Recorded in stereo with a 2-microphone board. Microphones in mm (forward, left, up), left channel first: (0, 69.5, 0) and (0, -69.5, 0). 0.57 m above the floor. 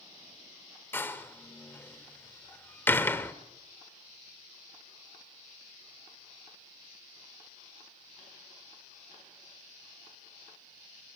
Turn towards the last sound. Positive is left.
turn(degrees=15)  # may be behind; listen again after turning